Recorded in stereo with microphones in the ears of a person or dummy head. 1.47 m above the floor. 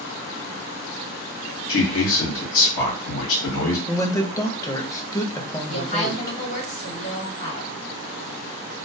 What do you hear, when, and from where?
1.7 s a man speaking: 70° left (ahead or behind), 0.8 m
3.9 s a man speaking: 15° left (ahead or behind), 0.6 m
5.7 s a woman speaking: 40° left (ahead or behind), 1.3 m